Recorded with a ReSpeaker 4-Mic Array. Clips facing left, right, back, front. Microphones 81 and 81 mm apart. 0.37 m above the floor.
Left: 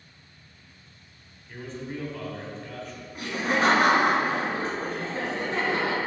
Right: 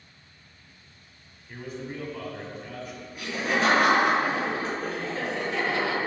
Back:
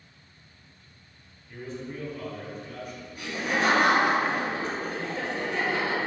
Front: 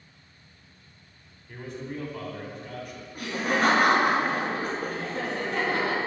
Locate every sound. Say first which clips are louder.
1.5 s a man speaking: even, front 1 dB; 10° right, 2 m
3.1 s laughter: left 1 dB, front 2 dB; 40° left, 3 m